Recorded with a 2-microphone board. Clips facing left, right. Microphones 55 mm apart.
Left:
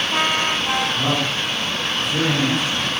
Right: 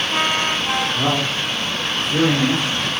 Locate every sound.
0.9 s a man speaking: 25° right (ahead or behind), 5.5 m; by 2.9 s 10° right (ahead or behind), 6 m